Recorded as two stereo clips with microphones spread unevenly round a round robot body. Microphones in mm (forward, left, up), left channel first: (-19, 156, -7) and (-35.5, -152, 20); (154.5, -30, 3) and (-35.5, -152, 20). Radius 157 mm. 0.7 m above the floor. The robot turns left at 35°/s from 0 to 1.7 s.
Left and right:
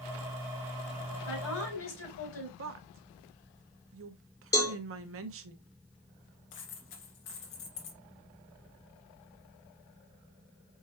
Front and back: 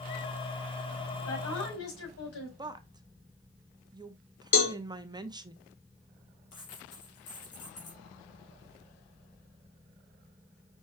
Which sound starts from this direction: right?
A woman speaking, at 2.6 s.